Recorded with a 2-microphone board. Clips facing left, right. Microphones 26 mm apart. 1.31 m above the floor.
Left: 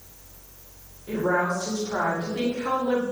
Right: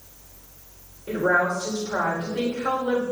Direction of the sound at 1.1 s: 70° right (ahead or behind).